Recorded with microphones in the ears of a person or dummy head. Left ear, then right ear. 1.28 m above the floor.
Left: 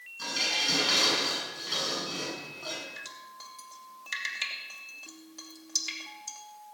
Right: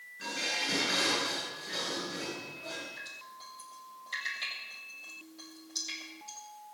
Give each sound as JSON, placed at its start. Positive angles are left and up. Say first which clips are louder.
{"t": 0.2, "sound": "dishes clattering", "louder": "left 5 dB", "side_deg": 70, "distance_m": 9.0}
{"t": 3.0, "sound": "dripping", "louder": "left 1 dB", "side_deg": 70, "distance_m": 2.5}